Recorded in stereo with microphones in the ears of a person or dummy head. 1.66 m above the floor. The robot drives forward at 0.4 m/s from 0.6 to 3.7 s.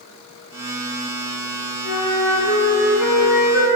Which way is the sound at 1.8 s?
45° left (ahead or behind).